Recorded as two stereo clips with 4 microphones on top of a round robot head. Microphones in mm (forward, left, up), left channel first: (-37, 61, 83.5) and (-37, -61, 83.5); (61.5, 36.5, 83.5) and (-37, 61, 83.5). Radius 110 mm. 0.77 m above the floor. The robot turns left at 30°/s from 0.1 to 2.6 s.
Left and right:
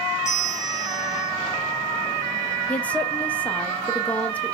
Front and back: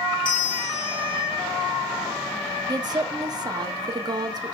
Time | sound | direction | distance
0.2 | a bell | 20° left | 1.6 m
2.7 | a woman speaking | 165° left | 0.9 m